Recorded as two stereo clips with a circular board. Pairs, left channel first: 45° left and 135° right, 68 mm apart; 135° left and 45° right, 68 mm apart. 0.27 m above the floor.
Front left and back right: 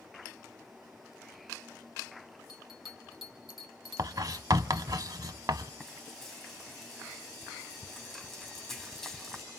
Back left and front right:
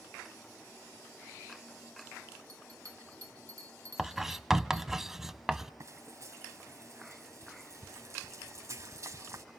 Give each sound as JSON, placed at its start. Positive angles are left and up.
{"t": 2.5, "sound": "a bell", "azimuth_deg": -50, "distance_m": 2.5}
{"t": 4.0, "sound": "writing", "azimuth_deg": -130, "distance_m": 0.6}
{"t": 5.8, "sound": "frying", "azimuth_deg": -40, "distance_m": 2.5}